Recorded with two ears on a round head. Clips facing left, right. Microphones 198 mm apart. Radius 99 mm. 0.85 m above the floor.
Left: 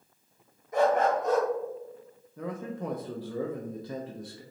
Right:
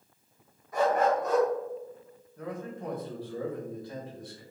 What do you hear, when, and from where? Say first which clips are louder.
0.7 s a dog barking: left 1 dB; 20° left (ahead or behind), 1.6 m
2.4 s a man speaking: left 2 dB; 60° left (ahead or behind), 0.6 m